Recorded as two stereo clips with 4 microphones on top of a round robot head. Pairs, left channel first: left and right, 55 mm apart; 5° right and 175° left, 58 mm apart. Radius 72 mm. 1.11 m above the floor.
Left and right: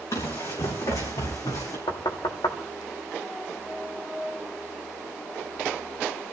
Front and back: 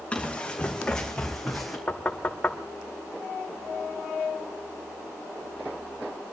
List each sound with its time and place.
0.1 s running footsteps: 65° left, 5 m; by 1.8 s 85° left, 3.5 m
1.9 s knocking: 60° left, 1.2 m